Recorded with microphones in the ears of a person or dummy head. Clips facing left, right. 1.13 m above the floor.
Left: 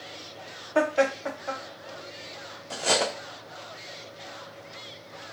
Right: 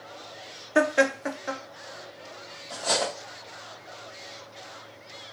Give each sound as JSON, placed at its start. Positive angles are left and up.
{"t": 0.8, "sound": "laughter", "side_deg": -30, "distance_m": 0.6}
{"t": 2.7, "sound": "cutlery clinking", "side_deg": 40, "distance_m": 0.5}